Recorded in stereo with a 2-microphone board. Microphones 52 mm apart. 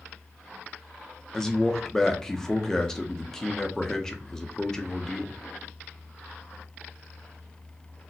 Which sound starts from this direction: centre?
A man speaking, at 1.3 s.